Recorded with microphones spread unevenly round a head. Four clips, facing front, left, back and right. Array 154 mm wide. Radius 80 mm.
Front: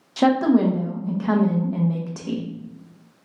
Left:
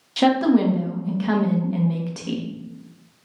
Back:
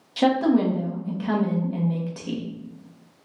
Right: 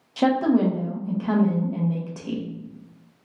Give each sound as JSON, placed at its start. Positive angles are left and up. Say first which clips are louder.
{"t": 0.2, "sound": "a woman speaking", "louder": "left 2 dB, front 2 dB", "azimuth_deg": 10, "distance_m": 0.7}